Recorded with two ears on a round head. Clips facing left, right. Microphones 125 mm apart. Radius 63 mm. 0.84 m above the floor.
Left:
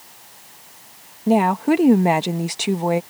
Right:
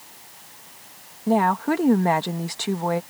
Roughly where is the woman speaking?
Centre.